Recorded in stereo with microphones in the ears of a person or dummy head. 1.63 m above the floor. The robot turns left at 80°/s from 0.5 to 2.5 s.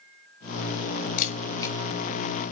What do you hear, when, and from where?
1.2 s a camera shutter: 55° left (ahead or behind), 3 m; by 1.8 s 15° left (ahead or behind), 3 m